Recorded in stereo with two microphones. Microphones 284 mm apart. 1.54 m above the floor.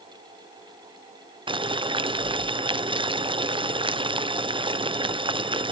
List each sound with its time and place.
1.5 s boiling: 20° right (ahead or behind), 0.6 m